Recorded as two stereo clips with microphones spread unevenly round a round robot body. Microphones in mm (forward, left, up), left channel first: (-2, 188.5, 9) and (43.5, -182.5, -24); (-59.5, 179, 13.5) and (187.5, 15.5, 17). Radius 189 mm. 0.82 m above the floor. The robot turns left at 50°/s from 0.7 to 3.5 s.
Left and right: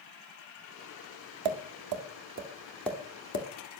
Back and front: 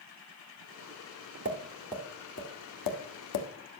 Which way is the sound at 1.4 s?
105° right.